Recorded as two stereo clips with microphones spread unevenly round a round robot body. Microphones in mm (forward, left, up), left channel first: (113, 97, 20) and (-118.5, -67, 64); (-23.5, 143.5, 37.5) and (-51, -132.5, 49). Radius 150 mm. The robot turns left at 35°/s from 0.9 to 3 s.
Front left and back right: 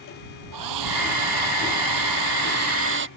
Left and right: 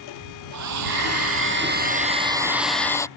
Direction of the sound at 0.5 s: 120° right.